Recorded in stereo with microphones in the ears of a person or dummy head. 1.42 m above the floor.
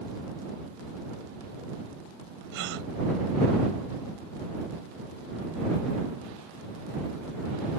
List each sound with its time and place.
2.5 s a gasp: 50° right (ahead or behind)